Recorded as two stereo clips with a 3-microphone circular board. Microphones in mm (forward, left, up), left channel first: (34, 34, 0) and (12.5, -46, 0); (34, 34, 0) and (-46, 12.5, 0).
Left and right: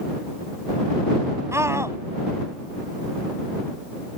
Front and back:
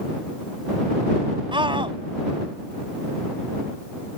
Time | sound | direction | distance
1.5 | a scream | 160° right | ?